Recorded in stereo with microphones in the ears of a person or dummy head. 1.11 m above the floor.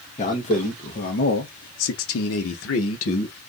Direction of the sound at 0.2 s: 30° left (ahead or behind).